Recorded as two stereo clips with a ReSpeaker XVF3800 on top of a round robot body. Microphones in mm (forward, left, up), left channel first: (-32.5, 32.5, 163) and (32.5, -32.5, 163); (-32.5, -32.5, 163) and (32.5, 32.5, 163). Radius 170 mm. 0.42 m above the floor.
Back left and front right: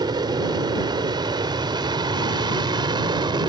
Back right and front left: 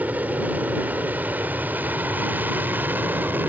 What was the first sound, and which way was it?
An aircraft, 25° right.